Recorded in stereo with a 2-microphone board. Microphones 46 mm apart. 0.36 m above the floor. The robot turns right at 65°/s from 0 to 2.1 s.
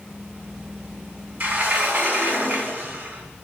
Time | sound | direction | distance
1.4 | a sliding door | 115° right | 1.1 m